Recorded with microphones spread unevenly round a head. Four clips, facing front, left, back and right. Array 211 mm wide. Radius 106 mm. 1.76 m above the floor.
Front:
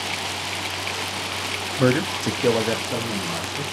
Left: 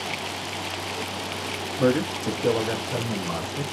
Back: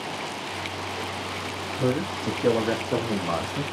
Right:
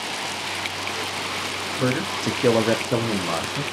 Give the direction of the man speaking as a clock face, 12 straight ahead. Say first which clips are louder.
Left 2 dB, front 5 dB; 12 o'clock.